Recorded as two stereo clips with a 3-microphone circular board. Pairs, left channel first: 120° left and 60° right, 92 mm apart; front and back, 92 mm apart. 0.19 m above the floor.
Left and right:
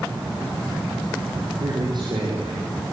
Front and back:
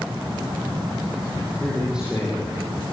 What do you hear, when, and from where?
1.6 s a man speaking: 95° right, 6.5 m; by 2.9 s 100° right, 7 m